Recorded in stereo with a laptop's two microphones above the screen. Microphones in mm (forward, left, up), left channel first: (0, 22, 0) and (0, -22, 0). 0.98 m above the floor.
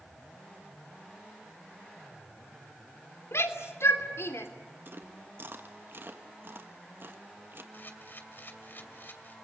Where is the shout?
75° left (ahead or behind), 2.5 m.